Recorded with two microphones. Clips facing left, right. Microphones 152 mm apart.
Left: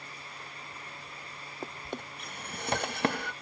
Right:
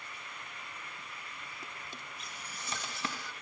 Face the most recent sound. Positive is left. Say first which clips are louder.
# left 14 dB
turn(degrees=60)  # may be behind; listen again after turning